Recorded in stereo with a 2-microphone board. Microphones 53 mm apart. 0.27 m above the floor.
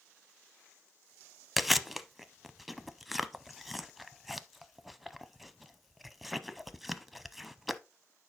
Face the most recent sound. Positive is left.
turn(degrees=0)  # may be behind; listen again after turning